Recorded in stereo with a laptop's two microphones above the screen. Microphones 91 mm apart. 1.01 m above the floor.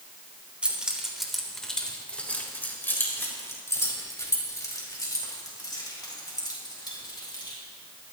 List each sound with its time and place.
0.6 s keys jangling: 15° right (ahead or behind), 3 m; by 7.5 s 50° left (ahead or behind), 7.5 m